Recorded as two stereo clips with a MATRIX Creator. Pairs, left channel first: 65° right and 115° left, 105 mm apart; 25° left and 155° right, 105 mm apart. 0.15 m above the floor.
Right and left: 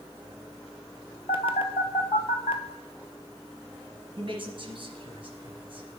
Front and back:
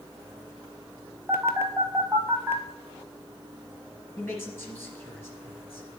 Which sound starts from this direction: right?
A phone buzzing, at 1.3 s.